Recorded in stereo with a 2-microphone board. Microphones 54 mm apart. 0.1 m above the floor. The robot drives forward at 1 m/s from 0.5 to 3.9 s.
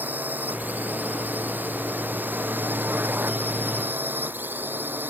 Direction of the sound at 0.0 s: 35° right (ahead or behind).